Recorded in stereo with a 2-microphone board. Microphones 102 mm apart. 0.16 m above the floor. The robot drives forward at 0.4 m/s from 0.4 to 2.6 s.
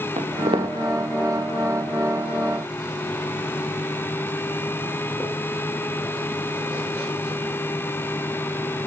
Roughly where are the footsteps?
Right.